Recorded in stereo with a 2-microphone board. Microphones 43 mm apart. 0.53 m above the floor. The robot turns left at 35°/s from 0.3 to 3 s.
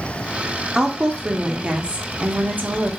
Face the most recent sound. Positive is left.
turn(degrees=-95)